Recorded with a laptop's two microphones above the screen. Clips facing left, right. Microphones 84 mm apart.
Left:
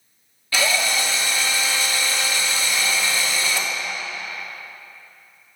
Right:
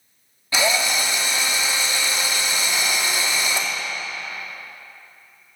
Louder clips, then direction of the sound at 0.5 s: Right 1 dB; 20° right (ahead or behind).